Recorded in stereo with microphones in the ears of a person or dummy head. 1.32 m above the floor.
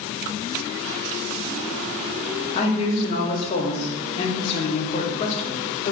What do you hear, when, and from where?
2.5 s a man speaking: 30° left (ahead or behind), 0.6 m